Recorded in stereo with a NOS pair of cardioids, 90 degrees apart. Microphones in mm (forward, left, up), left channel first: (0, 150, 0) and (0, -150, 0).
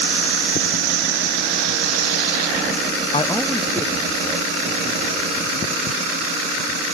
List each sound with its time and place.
3.1 s a man speaking: 20° left, 0.7 m; by 5.5 s 20° right, 3.5 m